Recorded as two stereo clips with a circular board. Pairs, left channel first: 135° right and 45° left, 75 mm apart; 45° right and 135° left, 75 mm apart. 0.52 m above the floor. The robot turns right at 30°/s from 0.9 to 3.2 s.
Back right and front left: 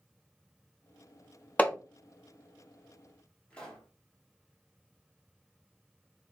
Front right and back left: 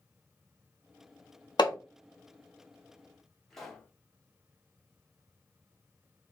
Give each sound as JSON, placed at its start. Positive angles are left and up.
{"t": 1.6, "sound": "hammering", "azimuth_deg": -65, "distance_m": 0.5}
{"t": 3.5, "sound": "a pop", "azimuth_deg": -120, "distance_m": 1.3}